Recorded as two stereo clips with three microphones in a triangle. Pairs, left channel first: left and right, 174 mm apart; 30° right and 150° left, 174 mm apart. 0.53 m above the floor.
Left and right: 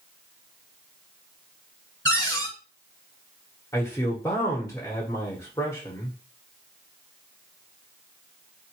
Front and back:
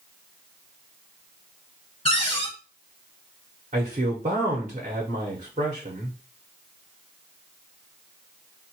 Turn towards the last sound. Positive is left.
turn(degrees=150)